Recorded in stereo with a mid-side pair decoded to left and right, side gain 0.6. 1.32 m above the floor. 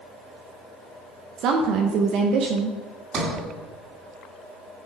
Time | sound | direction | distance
1.4 | a woman speaking | 60° right | 0.8 m
3.1 | a sliding door | 45° right | 2.5 m